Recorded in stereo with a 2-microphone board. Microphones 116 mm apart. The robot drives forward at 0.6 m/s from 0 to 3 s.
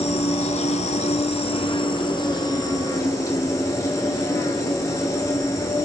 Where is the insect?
60° left (ahead or behind), 0.9 m; by 5.8 s 30° left (ahead or behind), 1.6 m.